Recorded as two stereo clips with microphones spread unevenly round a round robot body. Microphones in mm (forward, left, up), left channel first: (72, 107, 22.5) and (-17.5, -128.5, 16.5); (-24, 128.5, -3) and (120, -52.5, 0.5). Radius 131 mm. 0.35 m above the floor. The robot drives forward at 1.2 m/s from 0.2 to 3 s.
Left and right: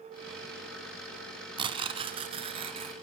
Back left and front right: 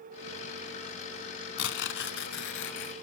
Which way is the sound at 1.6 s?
175° left.